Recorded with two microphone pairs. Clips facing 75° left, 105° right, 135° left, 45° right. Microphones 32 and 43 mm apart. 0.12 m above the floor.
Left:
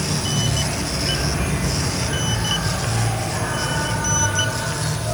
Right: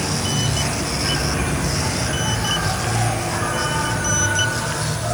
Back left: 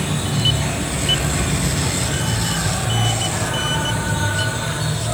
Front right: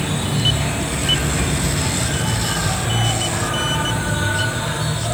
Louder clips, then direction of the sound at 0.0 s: Right 1 dB, even; 110° right.